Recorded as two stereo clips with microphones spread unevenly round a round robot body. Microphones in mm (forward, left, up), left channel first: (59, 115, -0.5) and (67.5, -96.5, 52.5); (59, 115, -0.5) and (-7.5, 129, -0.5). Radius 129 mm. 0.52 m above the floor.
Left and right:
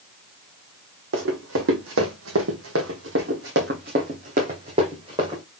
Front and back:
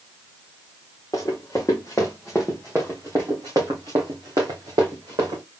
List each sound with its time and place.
1.1 s running footsteps: 80° right, 1.8 m; by 5.4 s 160° right, 2 m